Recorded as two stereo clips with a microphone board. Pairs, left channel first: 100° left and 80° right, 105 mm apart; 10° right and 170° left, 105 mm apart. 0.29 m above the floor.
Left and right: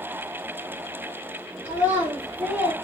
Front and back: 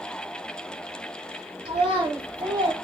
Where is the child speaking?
150° right, 1.5 m; by 2.7 s 155° right, 0.8 m.